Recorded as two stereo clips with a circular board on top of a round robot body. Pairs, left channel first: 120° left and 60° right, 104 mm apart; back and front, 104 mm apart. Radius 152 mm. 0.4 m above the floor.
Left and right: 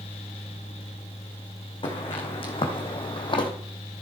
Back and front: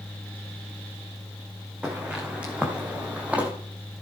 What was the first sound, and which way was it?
Footsteps, 80° left.